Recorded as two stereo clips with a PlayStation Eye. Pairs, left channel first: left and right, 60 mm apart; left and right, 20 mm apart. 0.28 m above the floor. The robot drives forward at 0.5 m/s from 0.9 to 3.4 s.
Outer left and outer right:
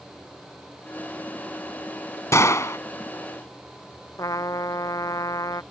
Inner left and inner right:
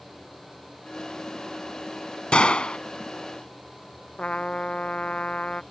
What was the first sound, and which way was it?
A gunshot, 60° left (ahead or behind).